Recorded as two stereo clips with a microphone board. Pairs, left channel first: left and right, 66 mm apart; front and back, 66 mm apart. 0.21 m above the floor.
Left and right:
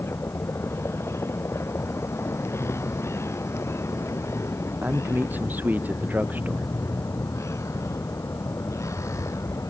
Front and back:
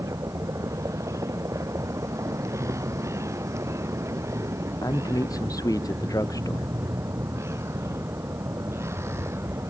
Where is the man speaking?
25° right.